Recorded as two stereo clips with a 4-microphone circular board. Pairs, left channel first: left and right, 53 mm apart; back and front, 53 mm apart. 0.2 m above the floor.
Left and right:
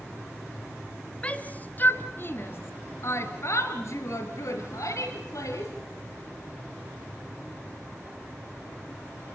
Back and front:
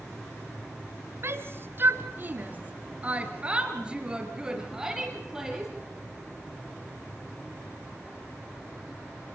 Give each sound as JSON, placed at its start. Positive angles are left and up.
{"t": 1.2, "sound": "a shout", "azimuth_deg": 25, "distance_m": 2.5}